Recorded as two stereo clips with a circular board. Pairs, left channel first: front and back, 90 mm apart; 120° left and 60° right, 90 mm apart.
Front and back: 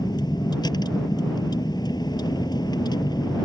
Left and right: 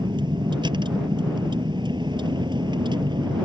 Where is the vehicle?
35° right.